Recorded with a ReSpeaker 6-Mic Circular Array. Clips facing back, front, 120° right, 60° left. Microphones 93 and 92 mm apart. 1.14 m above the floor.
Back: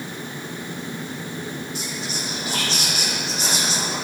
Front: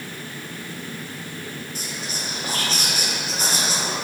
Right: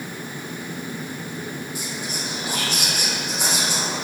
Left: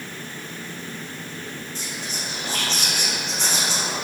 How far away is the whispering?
About 1.2 m.